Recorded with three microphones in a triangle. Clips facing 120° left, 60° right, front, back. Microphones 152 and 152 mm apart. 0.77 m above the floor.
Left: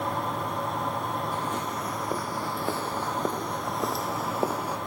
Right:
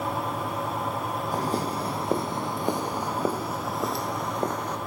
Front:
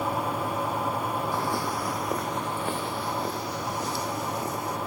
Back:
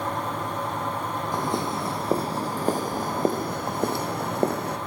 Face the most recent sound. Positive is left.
turn(degrees=-160)